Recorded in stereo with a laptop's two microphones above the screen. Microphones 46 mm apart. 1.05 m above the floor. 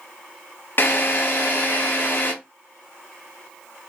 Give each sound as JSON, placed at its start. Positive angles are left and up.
{"t": 0.8, "sound": "a drill", "side_deg": 50, "distance_m": 1.1}